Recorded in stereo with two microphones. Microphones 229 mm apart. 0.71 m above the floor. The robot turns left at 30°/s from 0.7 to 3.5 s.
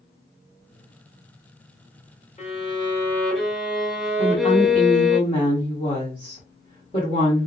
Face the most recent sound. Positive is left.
turn(degrees=25)  # may be behind; listen again after turning